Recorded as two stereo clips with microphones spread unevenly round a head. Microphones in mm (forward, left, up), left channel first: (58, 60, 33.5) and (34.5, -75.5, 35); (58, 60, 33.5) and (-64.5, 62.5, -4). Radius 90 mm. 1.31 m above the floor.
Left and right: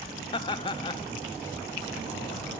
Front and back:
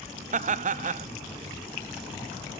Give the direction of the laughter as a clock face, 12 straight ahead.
7 o'clock.